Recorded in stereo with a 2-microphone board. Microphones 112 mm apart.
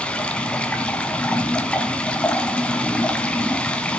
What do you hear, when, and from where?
0.0 s running water: 10° left (ahead or behind), 2 m